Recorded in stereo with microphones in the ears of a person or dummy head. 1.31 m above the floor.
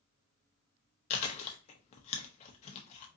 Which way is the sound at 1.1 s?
40° left (ahead or behind).